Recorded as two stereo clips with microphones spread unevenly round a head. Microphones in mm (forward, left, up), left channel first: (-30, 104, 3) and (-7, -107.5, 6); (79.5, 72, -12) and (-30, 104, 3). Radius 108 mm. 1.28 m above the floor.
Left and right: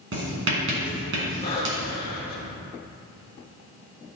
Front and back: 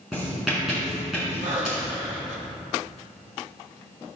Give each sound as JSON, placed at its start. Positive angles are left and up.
{"t": 0.1, "sound": "writing", "azimuth_deg": -110, "distance_m": 3.0}
{"t": 1.4, "sound": "breathing", "azimuth_deg": 160, "distance_m": 2.0}